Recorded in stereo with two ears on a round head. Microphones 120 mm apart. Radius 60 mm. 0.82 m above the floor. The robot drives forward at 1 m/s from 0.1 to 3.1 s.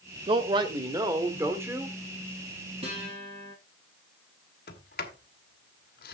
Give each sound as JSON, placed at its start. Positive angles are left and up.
{"t": 0.3, "sound": "a man speaking", "side_deg": -40, "distance_m": 1.2}
{"t": 2.8, "sound": "a guitar", "side_deg": -40, "distance_m": 8.0}
{"t": 4.7, "sound": "a sliding door", "side_deg": 70, "distance_m": 1.9}